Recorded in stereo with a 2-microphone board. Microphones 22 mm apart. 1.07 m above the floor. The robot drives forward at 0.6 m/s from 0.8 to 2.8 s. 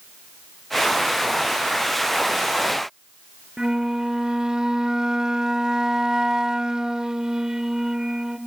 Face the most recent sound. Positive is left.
turn(degrees=-30)  # may be behind; listen again after turning